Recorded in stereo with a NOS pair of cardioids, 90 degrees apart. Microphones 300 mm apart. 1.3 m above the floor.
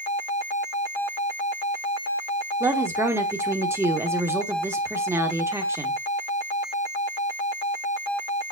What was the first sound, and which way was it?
A woman speaking, 10° right.